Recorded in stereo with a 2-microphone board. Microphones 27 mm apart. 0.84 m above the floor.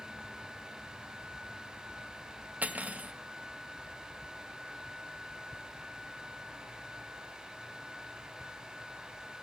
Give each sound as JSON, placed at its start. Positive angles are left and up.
{"t": 2.6, "sound": "cutlery clinking", "side_deg": -70, "distance_m": 0.7}